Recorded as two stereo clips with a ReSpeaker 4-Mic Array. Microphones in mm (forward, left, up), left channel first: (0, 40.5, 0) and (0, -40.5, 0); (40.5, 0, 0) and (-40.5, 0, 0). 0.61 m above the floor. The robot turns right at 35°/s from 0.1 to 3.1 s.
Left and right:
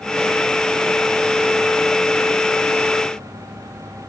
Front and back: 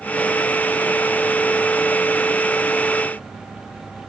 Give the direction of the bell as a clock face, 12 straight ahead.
No bell in this recording.